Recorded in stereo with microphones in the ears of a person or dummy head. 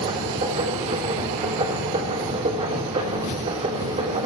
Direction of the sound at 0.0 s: 35° right (ahead or behind).